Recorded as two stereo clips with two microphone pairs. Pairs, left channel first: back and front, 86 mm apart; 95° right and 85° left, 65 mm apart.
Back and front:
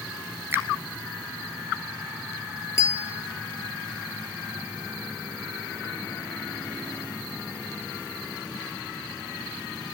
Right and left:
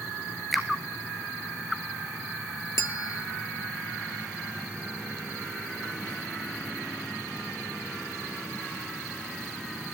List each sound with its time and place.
0.5 s a finger snap: 5° right, 1.2 m
2.8 s a bell: 130° right, 0.6 m